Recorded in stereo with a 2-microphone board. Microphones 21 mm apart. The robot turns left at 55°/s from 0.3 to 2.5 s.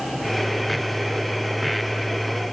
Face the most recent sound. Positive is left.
No sound to turn to.